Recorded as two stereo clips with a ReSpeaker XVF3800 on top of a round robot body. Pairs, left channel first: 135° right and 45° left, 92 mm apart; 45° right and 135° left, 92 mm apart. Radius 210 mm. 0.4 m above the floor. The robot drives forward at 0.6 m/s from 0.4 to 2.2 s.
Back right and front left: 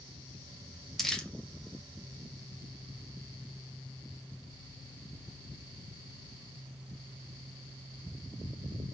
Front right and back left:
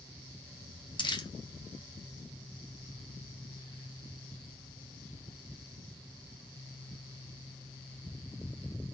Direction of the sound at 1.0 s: 45° right.